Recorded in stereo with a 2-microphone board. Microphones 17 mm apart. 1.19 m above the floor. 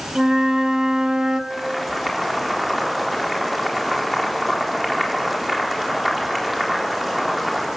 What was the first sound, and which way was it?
A flute, 45° right (ahead or behind).